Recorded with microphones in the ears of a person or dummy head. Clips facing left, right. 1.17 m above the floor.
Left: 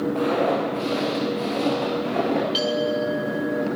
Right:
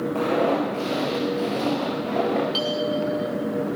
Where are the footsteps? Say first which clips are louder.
Right 2 dB; 30° right (ahead or behind), 5.5 m; by 2.4 s 5° right (ahead or behind), 4.5 m.